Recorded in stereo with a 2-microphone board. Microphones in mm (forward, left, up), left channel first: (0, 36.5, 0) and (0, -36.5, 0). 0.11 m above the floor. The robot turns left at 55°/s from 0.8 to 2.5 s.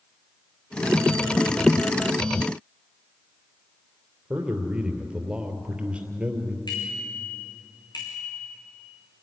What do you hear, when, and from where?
4.3 s a man speaking: 15° right (ahead or behind), 3 m
6.7 s a bicycle bell: 80° left, 6 m